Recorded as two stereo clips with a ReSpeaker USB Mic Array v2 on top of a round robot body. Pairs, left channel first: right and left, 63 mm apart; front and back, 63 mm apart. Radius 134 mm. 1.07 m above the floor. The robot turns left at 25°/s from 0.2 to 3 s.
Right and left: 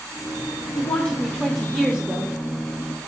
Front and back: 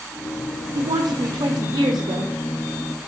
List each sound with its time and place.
0.8 s a woman speaking: 155° right, 0.5 m; by 2.3 s 165° left, 0.5 m